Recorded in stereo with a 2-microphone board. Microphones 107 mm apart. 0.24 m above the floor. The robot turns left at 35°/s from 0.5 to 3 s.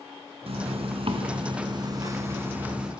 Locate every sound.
0.5 s a zipper: 90° right, 3 m; by 2.9 s 175° right, 3 m